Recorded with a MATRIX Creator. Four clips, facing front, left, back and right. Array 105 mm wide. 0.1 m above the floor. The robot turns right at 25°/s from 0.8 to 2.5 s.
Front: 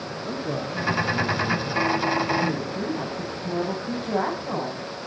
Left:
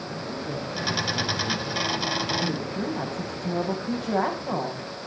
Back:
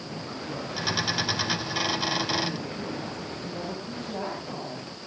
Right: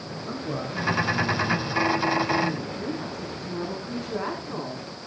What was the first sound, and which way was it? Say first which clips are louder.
A man speaking: right 3 dB, front 8 dB; 10° right.